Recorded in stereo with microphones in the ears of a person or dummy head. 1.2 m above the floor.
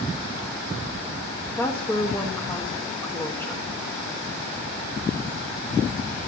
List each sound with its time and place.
1.6 s a woman speaking: 15° left (ahead or behind), 1.3 m